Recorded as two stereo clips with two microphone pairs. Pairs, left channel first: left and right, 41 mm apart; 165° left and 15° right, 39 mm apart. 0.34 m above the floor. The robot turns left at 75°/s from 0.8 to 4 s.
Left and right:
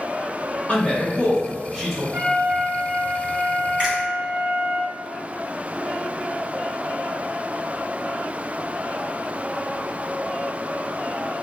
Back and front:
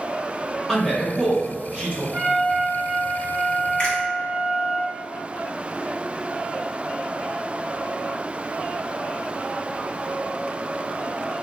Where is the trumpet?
15° right, 1.6 m; by 4.8 s 155° right, 1.6 m.